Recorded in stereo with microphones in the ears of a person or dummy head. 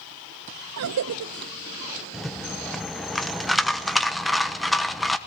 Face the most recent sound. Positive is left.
turn(degrees=0)  # may be behind; listen again after turning